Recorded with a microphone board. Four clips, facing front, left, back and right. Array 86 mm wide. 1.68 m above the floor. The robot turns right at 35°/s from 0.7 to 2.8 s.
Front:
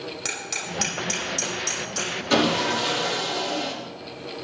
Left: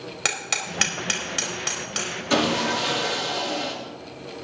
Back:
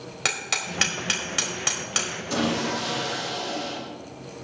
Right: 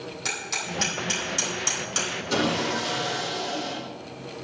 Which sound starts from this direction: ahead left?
Sawing, at 2.3 s.